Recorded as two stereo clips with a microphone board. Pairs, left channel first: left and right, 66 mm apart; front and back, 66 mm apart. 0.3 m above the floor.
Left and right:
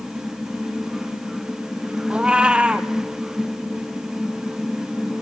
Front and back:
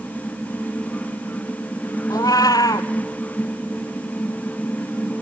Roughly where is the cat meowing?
Ahead.